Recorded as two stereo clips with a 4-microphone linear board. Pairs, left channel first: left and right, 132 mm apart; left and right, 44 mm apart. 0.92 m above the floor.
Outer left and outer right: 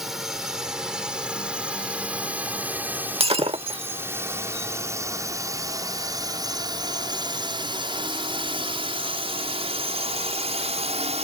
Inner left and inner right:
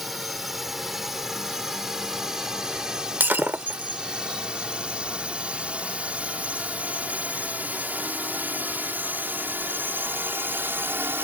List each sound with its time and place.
0.0 s a drone: 5° right (ahead or behind); by 11.2 s 60° right (ahead or behind)
3.2 s breaking glass: 50° right (ahead or behind)